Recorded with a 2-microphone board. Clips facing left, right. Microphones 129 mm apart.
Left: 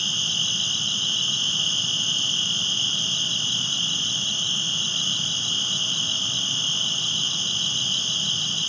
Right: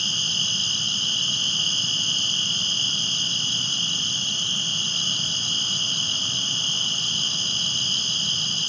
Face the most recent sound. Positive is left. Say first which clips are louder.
# even
turn(degrees=-25)  # may be behind; listen again after turning